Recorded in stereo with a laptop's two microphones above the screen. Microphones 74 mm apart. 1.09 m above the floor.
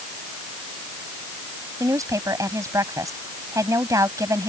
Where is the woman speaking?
45° right (ahead or behind).